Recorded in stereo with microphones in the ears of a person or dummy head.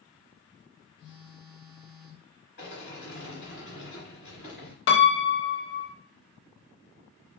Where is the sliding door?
60° left (ahead or behind), 1.7 m.